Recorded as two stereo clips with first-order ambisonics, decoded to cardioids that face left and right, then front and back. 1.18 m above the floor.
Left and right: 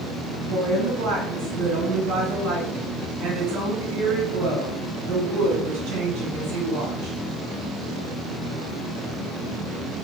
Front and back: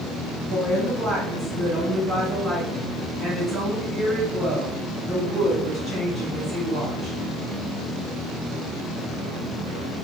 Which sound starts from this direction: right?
A woman speaking, at 0.5 s.